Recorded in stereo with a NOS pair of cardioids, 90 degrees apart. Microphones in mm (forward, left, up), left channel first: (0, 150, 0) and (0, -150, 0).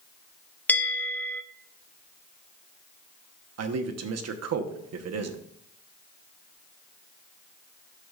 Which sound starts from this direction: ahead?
A bell, at 0.7 s.